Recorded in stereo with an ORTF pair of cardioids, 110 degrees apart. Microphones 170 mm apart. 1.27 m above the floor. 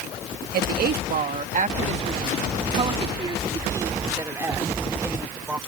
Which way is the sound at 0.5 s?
70° right.